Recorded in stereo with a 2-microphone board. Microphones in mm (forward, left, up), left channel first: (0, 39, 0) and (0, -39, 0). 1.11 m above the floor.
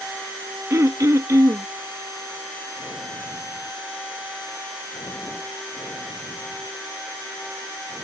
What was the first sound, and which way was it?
Throat clearing, 45° right (ahead or behind).